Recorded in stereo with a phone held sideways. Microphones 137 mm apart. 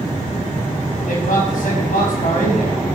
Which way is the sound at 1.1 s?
75° left (ahead or behind).